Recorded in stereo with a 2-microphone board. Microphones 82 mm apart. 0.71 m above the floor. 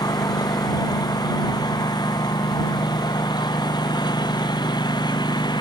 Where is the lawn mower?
50° left (ahead or behind); by 5.6 s 60° left (ahead or behind).